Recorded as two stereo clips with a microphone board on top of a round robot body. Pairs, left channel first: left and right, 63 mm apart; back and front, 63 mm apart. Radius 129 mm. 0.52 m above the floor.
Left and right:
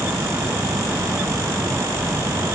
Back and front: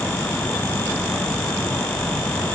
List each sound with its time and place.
Only background noise.